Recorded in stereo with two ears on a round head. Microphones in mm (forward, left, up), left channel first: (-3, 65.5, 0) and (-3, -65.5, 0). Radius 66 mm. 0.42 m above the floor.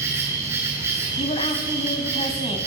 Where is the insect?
20° right (ahead or behind), 7 m.